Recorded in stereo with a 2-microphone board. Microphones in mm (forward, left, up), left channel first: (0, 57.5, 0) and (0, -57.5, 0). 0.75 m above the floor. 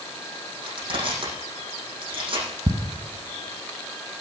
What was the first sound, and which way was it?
Crushing, 45° right (ahead or behind).